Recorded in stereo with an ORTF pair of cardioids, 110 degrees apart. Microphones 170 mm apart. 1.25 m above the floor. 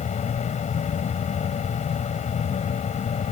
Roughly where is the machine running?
Ahead left.